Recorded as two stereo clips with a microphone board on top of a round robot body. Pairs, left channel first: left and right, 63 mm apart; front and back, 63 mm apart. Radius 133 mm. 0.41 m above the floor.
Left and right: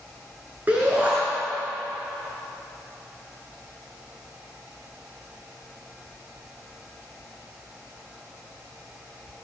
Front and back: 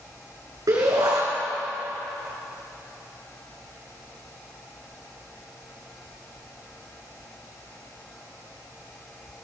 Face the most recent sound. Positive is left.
turn(degrees=-155)